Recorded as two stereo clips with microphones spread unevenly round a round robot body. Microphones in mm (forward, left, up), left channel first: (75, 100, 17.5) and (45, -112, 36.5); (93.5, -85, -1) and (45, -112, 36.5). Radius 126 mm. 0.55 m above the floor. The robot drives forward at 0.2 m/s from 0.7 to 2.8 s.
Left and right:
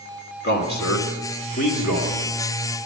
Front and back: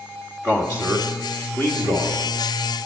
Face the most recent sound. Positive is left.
turn(degrees=125)